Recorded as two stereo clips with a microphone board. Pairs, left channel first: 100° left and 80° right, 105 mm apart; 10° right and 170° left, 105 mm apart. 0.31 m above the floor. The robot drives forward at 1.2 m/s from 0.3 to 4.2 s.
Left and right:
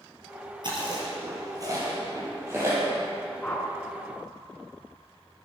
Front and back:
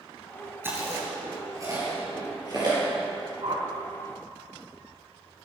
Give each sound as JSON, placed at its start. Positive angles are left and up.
{"t": 0.6, "sound": "chewing", "azimuth_deg": -120, "distance_m": 4.5}
{"t": 3.4, "sound": "a whoosh", "azimuth_deg": 175, "distance_m": 2.5}